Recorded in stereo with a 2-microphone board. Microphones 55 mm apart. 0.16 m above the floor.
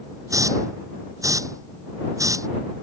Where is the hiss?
75° right (ahead or behind).